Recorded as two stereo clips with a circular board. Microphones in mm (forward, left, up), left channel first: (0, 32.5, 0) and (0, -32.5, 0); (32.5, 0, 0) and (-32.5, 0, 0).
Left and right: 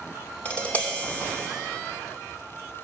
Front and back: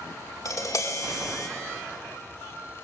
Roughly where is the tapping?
Ahead left.